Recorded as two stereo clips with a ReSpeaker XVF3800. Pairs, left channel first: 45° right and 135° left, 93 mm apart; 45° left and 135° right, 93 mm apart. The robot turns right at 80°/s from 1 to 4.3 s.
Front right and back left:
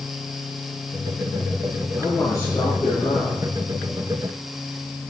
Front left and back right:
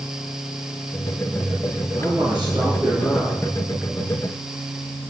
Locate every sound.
2.0 s a man speaking: 125° right, 8.5 m; by 3.4 s 10° right, 8.5 m